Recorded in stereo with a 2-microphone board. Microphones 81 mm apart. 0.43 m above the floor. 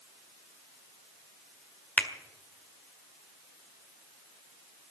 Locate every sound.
2.0 s a finger snap: 15° left (ahead or behind), 1.6 m